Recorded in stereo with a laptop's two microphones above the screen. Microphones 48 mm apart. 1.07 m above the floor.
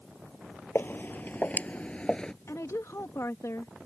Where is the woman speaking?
75° left (ahead or behind).